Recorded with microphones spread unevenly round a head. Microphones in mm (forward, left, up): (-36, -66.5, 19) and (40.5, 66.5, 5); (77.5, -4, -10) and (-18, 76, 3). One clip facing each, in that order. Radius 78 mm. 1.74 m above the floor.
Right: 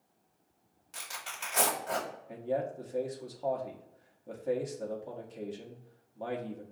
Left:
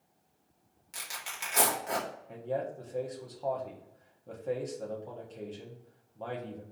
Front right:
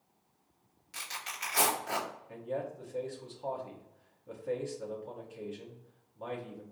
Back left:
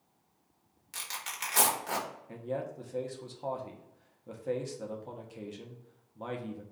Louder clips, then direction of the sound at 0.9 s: Even, back left 1 dB; 135° left.